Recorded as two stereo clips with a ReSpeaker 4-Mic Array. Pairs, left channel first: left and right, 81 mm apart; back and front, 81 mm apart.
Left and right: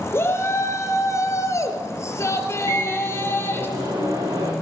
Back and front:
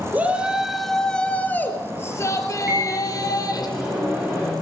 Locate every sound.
0.1 s a shout: 55° left, 1.3 m; by 3.7 s 150° left, 2.5 m
2.7 s a microwave: 70° right, 5.5 m